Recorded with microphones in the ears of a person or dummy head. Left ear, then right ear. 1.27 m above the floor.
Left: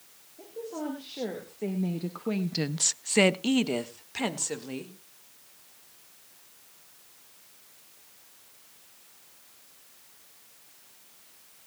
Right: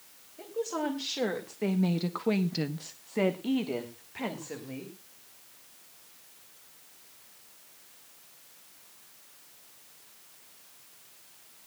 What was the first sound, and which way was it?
A woman speaking, 55° right (ahead or behind).